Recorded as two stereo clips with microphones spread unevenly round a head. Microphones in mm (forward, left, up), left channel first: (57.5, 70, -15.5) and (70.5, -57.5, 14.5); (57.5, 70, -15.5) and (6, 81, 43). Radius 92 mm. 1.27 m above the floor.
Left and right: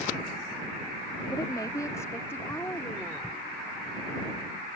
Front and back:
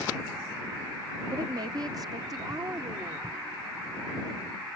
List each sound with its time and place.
1.3 s a woman speaking: 165° left; by 3.4 s straight behind